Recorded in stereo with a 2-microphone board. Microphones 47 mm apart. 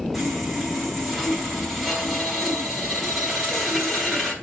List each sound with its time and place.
0.1 s sawing: 5° right (ahead or behind), 3 m